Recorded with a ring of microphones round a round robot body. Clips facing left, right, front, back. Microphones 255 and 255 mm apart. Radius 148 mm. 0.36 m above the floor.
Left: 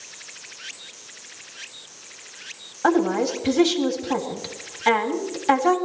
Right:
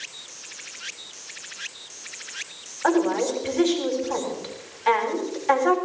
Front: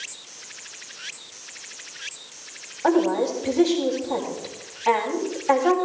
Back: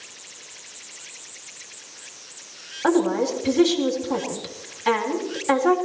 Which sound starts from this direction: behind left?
A woman speaking, at 2.8 s.